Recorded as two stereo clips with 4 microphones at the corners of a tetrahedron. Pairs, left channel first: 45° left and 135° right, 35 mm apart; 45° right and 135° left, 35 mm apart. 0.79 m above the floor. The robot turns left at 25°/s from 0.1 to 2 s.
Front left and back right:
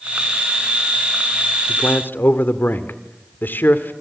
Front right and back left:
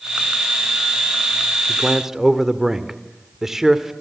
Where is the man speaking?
65° left, 2 m; by 3.9 s 55° left, 2 m.